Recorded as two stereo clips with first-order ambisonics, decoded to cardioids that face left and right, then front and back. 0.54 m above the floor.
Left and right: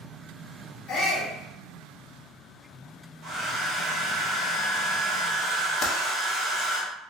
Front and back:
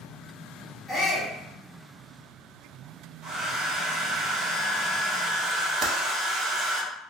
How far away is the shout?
About 1.2 m.